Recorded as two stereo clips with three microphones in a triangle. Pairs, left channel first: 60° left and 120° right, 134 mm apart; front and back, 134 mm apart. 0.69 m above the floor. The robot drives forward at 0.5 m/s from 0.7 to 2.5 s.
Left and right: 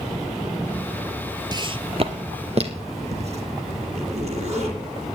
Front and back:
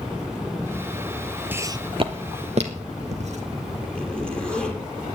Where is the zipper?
80° right, 7 m.